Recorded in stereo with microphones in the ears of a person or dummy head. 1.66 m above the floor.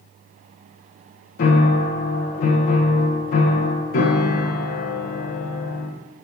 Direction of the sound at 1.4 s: 50° left (ahead or behind).